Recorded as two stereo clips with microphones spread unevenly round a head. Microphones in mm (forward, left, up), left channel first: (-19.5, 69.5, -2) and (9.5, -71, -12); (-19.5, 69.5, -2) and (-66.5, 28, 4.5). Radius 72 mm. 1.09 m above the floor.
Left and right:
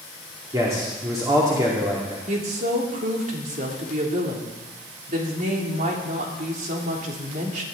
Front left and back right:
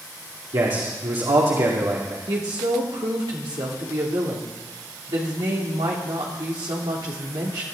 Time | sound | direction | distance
0.5 | a man speaking | 145° right | 2.5 m
2.3 | a woman speaking | 115° right | 3 m